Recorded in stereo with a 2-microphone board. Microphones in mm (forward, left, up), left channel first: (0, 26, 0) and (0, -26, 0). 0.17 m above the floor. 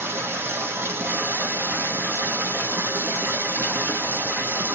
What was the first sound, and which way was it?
Running water, 50° right (ahead or behind).